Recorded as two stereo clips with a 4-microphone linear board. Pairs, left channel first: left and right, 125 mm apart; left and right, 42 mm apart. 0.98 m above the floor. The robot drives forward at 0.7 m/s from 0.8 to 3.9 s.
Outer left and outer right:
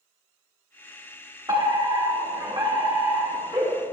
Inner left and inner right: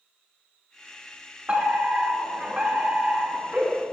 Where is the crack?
No crack in this recording.